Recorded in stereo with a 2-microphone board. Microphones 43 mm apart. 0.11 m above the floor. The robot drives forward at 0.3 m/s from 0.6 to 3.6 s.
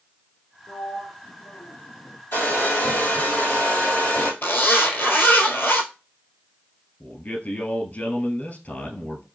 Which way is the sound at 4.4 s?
60° left (ahead or behind).